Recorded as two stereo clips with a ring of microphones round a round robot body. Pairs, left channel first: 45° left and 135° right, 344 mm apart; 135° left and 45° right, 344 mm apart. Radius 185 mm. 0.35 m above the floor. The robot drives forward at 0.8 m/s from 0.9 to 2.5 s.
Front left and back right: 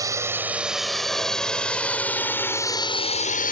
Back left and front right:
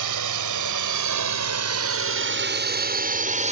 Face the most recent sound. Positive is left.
turn(degrees=5)